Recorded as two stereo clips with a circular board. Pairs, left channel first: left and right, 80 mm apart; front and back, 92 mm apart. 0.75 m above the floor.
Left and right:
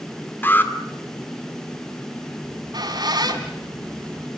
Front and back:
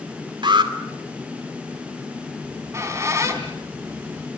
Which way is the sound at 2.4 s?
120° right.